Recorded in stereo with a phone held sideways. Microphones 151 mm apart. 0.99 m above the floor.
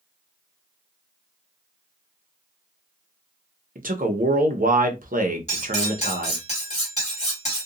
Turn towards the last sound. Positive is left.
turn(degrees=50)  # may be behind; listen again after turning